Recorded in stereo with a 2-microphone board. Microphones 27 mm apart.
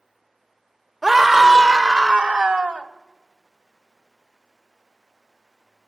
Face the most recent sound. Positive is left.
turn(degrees=-55)  # may be behind; listen again after turning